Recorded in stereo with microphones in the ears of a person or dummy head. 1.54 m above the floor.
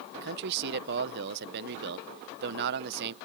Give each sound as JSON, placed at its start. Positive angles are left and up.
{"t": 0.1, "sound": "a man speaking", "side_deg": -60}